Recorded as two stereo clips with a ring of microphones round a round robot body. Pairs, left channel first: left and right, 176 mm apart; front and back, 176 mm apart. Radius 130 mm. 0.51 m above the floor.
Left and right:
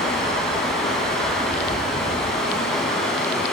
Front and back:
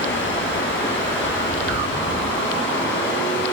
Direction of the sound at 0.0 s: Straight ahead.